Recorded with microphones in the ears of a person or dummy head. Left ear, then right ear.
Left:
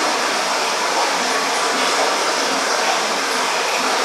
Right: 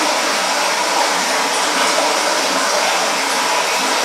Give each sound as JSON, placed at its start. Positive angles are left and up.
{"t": 0.0, "sound": "running water", "side_deg": -65, "distance_m": 2.0}